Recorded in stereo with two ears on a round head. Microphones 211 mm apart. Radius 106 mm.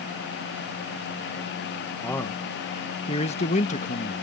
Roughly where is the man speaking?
Centre.